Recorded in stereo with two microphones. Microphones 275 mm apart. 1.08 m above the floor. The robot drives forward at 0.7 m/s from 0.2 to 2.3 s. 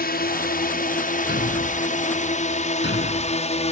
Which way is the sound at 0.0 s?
35° left (ahead or behind).